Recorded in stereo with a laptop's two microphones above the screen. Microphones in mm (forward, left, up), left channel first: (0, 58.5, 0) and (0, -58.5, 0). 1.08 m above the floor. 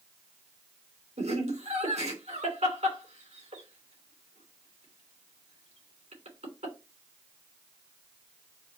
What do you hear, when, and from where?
1.2 s laughter: 85° right, 3 m